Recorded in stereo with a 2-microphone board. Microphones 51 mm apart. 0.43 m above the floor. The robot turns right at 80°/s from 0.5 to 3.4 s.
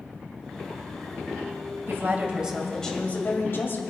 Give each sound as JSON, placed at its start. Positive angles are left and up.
{"t": 1.9, "sound": "a woman speaking", "azimuth_deg": -65, "distance_m": 2.0}